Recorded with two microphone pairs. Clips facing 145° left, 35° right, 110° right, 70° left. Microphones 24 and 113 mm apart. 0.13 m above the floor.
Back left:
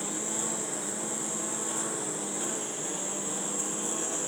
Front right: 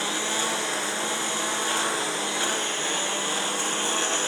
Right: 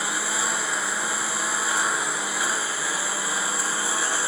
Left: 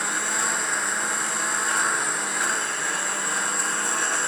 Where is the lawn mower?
25° right.